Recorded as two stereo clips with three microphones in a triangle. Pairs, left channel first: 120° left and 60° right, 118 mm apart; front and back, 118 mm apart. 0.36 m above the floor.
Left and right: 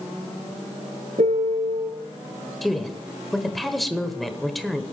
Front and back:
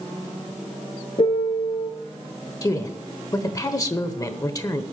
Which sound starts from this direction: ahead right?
A piano, at 1.2 s.